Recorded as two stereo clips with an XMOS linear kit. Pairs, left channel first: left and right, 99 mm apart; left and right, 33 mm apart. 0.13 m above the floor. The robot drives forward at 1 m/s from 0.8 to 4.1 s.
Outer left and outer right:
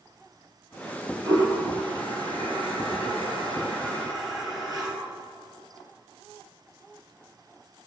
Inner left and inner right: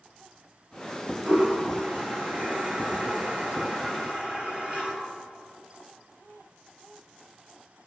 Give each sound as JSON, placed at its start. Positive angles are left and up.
{"t": 1.2, "sound": "a toilet flushing", "side_deg": -45, "distance_m": 2.5}